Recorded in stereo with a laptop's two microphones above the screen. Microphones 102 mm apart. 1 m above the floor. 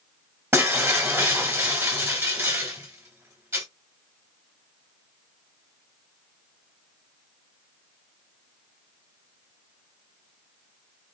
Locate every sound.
0.5 s breaking glass: 25° right (ahead or behind), 2.5 m